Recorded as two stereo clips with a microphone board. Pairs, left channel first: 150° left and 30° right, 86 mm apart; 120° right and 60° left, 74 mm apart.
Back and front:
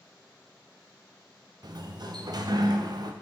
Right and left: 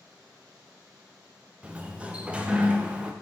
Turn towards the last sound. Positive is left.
turn(degrees=-10)